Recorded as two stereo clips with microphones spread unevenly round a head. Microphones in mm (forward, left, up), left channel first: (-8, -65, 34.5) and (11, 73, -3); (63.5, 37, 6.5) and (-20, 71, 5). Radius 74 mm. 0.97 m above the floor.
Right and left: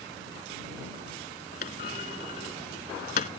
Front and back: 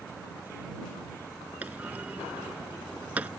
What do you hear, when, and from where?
1.6 s a clunk: 120° right